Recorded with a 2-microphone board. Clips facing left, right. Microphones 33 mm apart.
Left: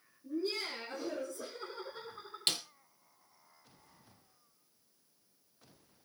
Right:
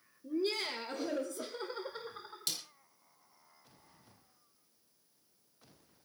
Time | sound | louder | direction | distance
0.2 | laughter | right 2 dB | 50° right (ahead or behind) | 4.5 m
2.5 | a snare drum | left 7 dB | 45° left (ahead or behind) | 1.6 m